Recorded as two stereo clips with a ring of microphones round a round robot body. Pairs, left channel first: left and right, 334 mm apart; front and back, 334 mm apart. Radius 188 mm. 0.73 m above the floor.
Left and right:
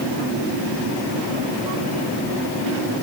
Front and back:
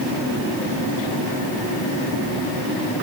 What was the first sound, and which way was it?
Only background noise.